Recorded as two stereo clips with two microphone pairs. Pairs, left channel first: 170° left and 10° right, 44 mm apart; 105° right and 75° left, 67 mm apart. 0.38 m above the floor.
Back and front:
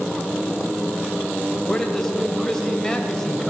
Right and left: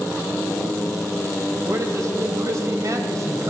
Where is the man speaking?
90° left, 1.9 m.